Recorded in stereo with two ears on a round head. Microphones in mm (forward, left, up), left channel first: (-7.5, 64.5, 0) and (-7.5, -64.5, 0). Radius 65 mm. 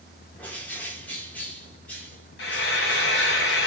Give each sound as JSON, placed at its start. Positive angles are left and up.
{"t": 0.4, "sound": "a bird", "side_deg": 10, "distance_m": 1.1}
{"t": 2.4, "sound": "frying", "side_deg": 85, "distance_m": 1.4}